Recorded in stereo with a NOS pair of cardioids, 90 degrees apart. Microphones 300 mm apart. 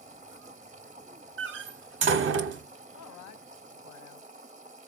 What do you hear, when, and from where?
0.0 s a machine running: 25° right, 0.7 m
1.4 s a door slam: 40° right, 0.6 m
2.9 s a man speaking: 65° left, 0.7 m